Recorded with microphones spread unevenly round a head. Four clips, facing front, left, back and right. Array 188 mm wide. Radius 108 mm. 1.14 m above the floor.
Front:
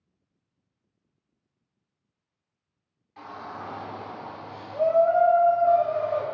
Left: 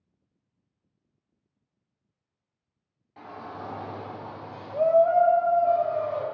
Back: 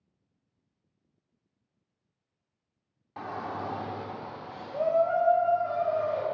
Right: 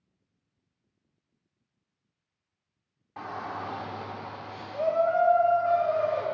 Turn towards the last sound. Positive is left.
turn(degrees=90)